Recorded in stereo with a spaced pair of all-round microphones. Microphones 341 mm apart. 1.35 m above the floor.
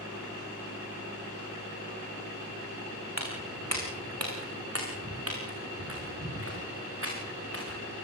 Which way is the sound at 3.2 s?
50° right (ahead or behind).